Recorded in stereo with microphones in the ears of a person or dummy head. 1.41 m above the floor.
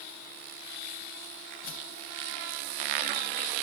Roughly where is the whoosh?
Left.